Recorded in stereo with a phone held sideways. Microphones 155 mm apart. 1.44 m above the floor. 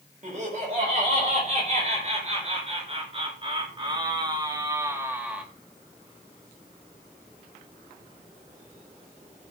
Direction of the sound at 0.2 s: 50° right (ahead or behind).